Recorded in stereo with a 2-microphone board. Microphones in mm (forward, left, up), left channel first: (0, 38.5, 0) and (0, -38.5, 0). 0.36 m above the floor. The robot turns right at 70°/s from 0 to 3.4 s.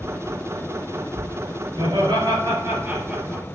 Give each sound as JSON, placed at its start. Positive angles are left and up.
{"t": 1.8, "sound": "laughter", "azimuth_deg": -100, "distance_m": 4.5}